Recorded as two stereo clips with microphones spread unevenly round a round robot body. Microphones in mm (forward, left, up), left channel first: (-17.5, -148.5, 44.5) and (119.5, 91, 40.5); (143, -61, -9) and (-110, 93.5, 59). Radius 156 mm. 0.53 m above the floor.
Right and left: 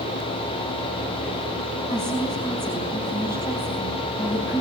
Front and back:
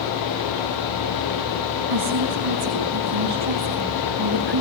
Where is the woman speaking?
165° left, 4.5 m.